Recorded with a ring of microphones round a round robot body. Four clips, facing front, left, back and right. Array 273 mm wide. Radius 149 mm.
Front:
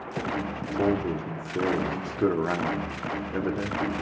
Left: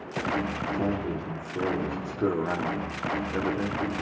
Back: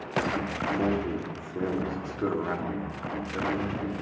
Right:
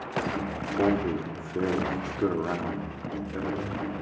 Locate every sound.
0.7 s a man speaking: 65° right, 1.7 m; by 4.0 s 45° left, 1.7 m